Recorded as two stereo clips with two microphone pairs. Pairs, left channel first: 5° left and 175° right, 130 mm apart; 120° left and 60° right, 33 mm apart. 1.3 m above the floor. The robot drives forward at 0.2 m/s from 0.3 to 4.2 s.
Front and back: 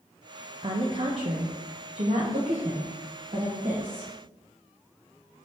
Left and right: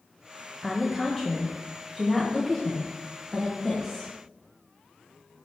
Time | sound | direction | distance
0.6 | a woman speaking | 135° right | 0.8 m